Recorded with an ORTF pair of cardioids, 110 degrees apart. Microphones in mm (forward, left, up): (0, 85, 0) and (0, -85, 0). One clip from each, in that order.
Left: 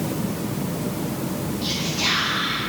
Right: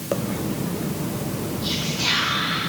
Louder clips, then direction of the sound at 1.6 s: Even; 60° left.